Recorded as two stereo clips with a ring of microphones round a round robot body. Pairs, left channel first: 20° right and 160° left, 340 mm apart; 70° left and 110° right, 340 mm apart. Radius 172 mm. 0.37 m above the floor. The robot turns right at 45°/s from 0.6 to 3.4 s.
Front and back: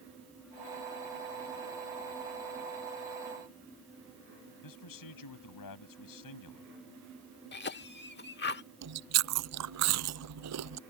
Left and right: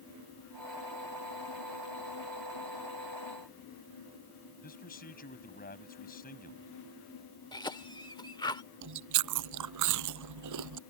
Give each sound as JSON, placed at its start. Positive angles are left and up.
{"t": 4.6, "sound": "a man speaking", "azimuth_deg": 5}
{"t": 7.5, "sound": "a cough", "azimuth_deg": 0}
{"t": 8.8, "sound": "chewing", "azimuth_deg": -155}